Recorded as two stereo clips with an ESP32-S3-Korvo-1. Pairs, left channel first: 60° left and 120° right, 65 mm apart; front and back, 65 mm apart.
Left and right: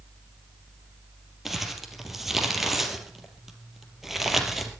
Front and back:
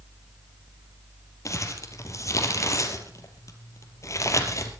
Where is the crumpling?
35° right, 3 m.